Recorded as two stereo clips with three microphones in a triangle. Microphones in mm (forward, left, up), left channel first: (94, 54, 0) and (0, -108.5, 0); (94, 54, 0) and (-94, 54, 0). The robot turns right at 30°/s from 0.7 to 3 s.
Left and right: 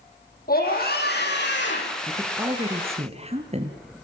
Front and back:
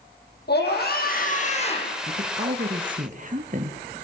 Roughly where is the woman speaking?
Behind.